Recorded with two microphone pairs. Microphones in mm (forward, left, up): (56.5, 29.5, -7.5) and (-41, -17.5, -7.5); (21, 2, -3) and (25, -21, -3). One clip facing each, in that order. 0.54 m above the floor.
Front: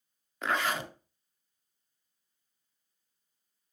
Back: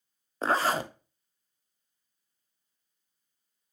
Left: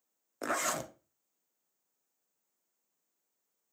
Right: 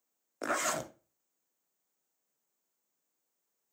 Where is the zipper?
155° right, 0.7 m.